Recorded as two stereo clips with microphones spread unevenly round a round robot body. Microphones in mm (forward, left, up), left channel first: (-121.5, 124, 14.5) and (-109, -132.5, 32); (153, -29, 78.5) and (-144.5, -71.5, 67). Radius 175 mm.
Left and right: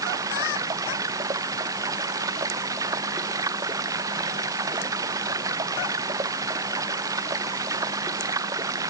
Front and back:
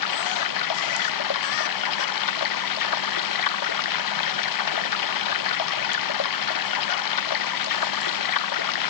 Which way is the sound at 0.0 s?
5° right.